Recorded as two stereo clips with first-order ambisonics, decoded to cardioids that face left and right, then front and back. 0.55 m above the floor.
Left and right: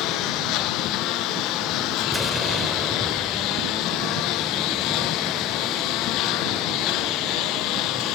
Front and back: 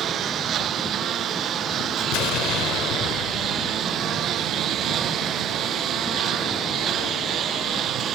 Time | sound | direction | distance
0.0 | a lawn mower | 125° left | ?
2.1 | an explosion | straight ahead | ?